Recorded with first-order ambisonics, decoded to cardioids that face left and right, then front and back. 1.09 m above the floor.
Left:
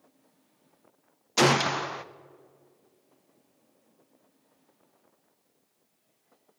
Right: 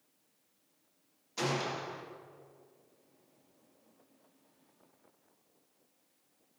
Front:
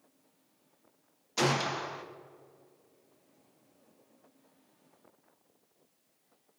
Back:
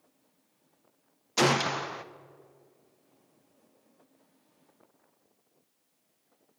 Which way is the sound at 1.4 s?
115° left.